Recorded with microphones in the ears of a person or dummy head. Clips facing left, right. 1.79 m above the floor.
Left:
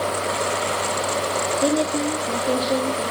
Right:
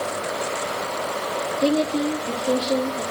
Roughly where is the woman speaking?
Centre.